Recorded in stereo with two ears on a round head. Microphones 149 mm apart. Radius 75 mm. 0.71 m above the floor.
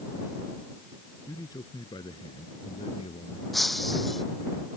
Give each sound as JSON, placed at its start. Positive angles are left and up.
{"t": 1.3, "sound": "a man speaking", "side_deg": 20}
{"t": 3.5, "sound": "breaking glass", "side_deg": 0}